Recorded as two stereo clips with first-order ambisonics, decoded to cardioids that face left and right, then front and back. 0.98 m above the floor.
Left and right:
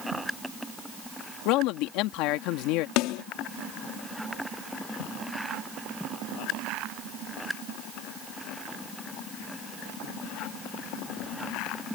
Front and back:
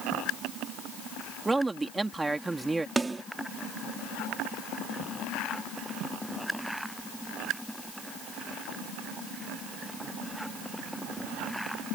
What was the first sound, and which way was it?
A man speaking, 100° left.